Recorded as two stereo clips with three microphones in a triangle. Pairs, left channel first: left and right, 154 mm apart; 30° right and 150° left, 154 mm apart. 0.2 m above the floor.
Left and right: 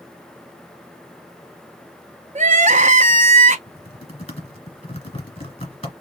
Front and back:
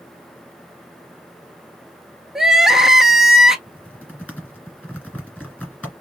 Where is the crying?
125° right, 0.6 m.